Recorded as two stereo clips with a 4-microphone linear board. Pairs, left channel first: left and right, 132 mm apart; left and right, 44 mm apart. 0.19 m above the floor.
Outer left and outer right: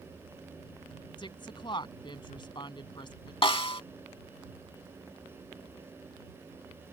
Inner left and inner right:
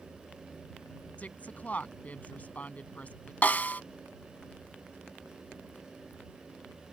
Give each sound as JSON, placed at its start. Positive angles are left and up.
{"t": 1.2, "sound": "a woman speaking", "side_deg": 35}
{"t": 3.4, "sound": "a snare drum", "side_deg": 40}